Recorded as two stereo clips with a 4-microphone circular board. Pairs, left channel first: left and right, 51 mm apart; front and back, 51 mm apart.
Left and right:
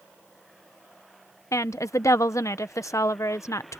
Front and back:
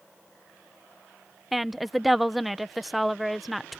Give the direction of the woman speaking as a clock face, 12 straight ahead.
9 o'clock.